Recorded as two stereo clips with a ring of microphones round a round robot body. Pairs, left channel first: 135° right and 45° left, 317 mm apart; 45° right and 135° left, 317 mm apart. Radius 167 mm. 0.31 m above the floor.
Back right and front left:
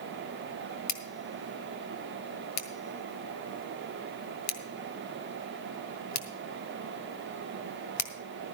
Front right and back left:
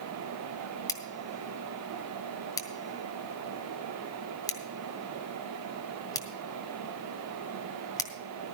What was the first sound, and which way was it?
Scissors, 120° right.